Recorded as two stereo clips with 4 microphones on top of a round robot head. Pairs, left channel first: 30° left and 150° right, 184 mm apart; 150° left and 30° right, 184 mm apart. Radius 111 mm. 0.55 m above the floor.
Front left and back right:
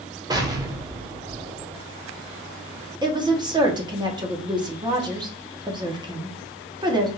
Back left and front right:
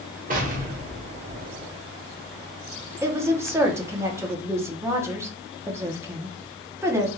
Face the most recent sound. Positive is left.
turn(degrees=-100)